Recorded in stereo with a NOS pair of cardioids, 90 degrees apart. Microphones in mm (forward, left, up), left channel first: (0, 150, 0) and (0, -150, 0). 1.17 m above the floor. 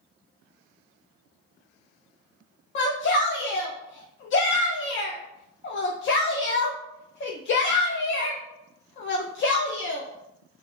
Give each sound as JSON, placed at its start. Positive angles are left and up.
{"t": 2.8, "sound": "a shout", "azimuth_deg": 40, "distance_m": 0.5}